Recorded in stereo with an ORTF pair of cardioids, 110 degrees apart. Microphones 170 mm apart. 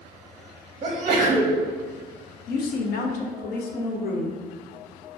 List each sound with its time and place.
0.8 s a sneeze: 30° right, 0.6 m
2.5 s a woman speaking: 65° left, 0.5 m